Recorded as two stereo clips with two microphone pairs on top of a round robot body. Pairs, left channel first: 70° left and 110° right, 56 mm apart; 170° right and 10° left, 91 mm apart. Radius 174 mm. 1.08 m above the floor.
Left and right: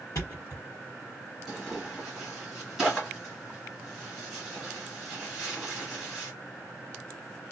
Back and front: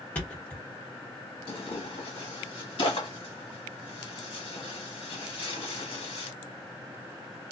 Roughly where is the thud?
Left.